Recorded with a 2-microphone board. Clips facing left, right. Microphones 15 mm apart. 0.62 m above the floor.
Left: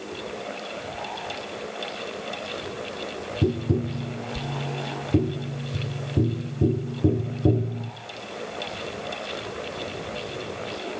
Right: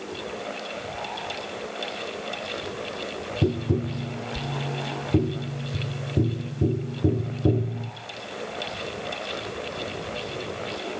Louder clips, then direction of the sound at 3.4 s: Left 1 dB; 5° right (ahead or behind).